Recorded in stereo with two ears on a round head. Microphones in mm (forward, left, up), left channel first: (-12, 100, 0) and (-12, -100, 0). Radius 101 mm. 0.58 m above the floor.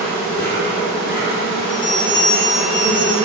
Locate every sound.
0.0 s an insect: 40° left (ahead or behind), 1.1 m
1.7 s a bell: 20° left (ahead or behind), 0.6 m